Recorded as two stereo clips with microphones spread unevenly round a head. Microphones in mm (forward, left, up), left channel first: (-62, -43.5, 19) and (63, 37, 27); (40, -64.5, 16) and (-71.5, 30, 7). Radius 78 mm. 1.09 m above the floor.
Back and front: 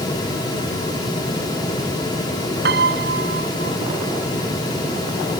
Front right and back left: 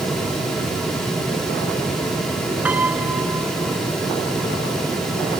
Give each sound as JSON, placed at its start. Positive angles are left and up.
{"t": 2.6, "sound": "a piano", "azimuth_deg": 60}